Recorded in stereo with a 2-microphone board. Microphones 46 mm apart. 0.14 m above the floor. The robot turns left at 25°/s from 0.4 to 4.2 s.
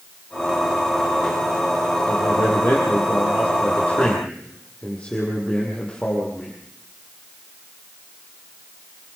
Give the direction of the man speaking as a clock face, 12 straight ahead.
9 o'clock.